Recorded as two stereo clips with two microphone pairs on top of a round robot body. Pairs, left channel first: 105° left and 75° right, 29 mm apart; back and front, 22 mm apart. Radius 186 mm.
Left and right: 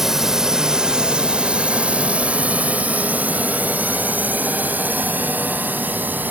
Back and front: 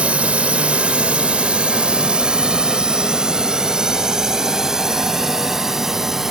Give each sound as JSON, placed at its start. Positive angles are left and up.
{"t": 0.0, "sound": "a drone", "azimuth_deg": 0}